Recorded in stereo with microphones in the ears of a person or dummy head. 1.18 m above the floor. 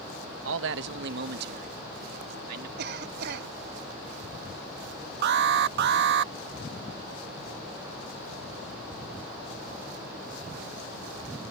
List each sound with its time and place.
0.5 s a man speaking: 70° right (ahead or behind); by 2.7 s 55° right (ahead or behind)
2.8 s a cough: 65° right (ahead or behind)
5.2 s an alarm: 60° right (ahead or behind)